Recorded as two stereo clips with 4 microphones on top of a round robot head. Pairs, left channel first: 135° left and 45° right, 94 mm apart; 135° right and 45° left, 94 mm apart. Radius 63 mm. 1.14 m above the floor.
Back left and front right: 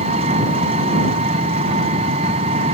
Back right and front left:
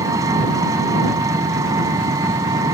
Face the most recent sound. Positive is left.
turn(degrees=-15)